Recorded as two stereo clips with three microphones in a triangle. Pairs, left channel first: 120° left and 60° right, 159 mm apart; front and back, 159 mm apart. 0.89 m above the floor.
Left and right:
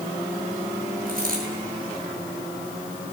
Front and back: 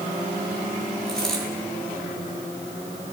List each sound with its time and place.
1.1 s a dropped coin: 85° right, 7.5 m